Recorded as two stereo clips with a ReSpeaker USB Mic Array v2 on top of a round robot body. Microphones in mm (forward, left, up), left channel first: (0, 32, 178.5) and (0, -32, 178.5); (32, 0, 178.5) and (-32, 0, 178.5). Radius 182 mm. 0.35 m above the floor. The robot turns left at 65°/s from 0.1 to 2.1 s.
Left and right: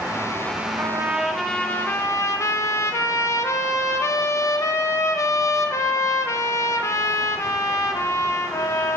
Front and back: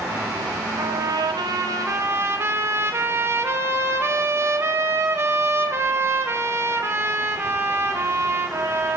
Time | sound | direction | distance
0.8 | a trumpet | 145° right | 1.0 m